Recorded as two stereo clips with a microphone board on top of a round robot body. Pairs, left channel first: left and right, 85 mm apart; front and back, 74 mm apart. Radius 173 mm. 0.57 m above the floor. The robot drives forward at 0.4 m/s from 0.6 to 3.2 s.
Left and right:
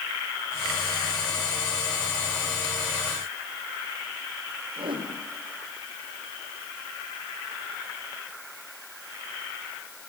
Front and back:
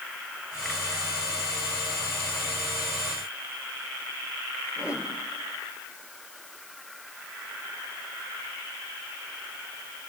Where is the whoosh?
100° right, 5 m.